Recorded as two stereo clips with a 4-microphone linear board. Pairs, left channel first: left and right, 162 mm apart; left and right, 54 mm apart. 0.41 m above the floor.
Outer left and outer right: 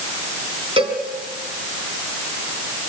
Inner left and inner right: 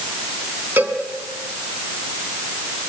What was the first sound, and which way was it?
A cowbell, 35° right (ahead or behind).